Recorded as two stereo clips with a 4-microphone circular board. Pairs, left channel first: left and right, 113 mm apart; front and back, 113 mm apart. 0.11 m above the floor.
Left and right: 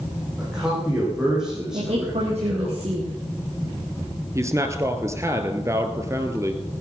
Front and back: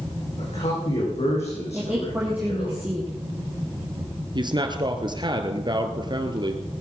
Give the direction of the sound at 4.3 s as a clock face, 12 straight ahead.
5 o'clock.